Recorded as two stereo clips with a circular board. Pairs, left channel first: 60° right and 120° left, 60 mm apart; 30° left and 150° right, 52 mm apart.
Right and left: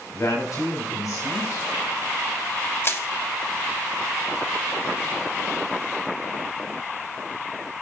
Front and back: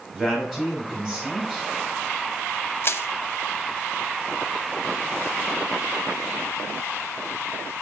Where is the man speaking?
75° right, 3.5 m.